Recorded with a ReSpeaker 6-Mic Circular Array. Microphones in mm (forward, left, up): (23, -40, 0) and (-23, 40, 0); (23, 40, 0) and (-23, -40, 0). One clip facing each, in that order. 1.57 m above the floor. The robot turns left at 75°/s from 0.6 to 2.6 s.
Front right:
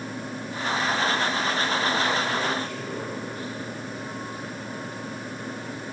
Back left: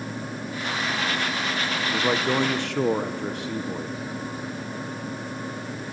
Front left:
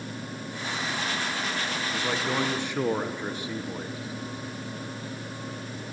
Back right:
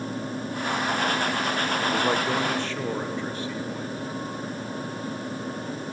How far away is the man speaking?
About 1.2 m.